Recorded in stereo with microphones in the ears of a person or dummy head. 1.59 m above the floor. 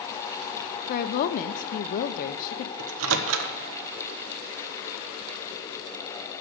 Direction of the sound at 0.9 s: 45° left (ahead or behind).